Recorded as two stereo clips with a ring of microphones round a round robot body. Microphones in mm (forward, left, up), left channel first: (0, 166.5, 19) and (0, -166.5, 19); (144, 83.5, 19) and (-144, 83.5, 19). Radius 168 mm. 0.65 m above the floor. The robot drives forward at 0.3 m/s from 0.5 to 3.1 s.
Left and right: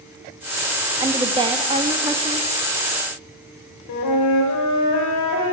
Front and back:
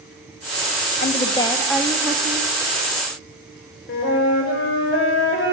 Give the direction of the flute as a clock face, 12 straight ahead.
10 o'clock.